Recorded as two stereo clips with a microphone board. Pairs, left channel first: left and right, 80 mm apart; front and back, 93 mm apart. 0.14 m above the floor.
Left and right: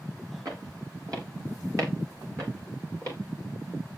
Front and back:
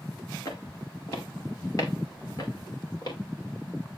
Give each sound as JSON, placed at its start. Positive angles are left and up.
{"t": 0.5, "sound": "footsteps", "azimuth_deg": -55, "distance_m": 7.0}